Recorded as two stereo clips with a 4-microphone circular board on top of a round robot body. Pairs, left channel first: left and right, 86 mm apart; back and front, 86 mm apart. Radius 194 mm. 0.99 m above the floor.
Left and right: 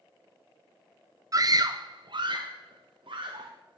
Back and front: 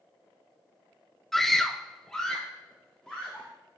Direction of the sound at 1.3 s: 95° right.